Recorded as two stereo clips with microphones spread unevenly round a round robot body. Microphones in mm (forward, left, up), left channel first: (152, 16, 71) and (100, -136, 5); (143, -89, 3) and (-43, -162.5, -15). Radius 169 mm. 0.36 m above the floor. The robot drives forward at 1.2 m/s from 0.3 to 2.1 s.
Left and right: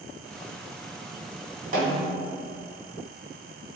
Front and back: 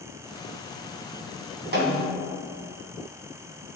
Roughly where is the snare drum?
Behind right.